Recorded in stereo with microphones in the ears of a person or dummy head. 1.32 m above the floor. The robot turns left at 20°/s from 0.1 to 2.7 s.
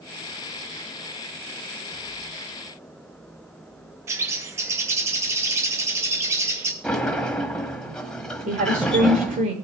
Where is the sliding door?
5° left (ahead or behind), 1.4 m.